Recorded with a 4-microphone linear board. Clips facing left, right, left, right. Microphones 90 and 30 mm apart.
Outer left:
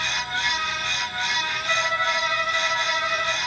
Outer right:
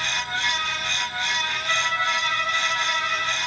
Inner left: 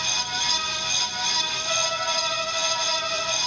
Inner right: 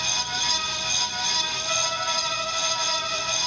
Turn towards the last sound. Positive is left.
turn(degrees=15)  # may be behind; listen again after turning